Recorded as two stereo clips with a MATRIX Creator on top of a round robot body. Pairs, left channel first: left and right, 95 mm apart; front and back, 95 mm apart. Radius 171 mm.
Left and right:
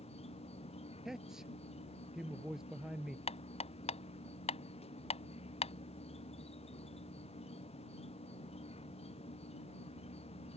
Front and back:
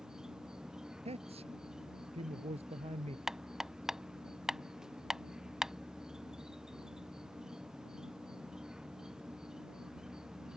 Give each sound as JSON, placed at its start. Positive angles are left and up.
{"t": 0.0, "sound": "an insect", "azimuth_deg": 95}
{"t": 1.1, "sound": "a man speaking", "azimuth_deg": -175}
{"t": 3.3, "sound": "hammering", "azimuth_deg": 95}